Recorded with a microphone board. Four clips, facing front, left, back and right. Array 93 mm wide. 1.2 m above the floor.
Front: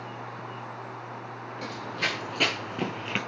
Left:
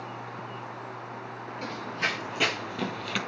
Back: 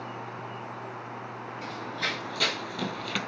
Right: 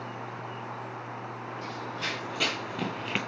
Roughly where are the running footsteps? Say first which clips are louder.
Left 5 dB, front 2 dB; ahead left.